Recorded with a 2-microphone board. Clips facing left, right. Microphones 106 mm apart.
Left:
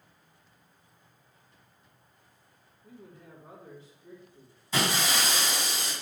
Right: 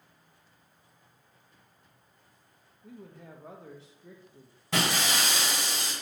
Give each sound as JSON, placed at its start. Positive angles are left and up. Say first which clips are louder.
{"t": 2.8, "sound": "a man speaking", "louder": "right 3 dB", "side_deg": -90, "distance_m": 1.5}
{"t": 4.7, "sound": "breaking glass", "louder": "even", "side_deg": -75, "distance_m": 4.0}